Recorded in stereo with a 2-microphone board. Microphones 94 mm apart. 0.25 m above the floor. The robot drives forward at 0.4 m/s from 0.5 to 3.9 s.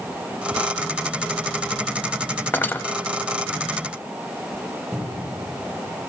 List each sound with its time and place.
2.5 s cutlery clinking: 20° left (ahead or behind), 0.7 m; by 2.8 s 25° left (ahead or behind), 0.6 m
4.9 s a cupboard door: centre (ahead or behind), 8 m